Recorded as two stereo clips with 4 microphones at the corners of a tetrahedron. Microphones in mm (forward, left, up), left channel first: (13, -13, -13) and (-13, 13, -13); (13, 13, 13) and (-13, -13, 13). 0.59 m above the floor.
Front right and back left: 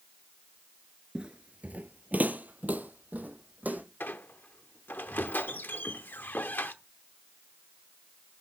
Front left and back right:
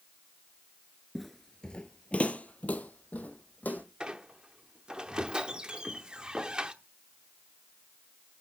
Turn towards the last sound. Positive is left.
turn(degrees=-70)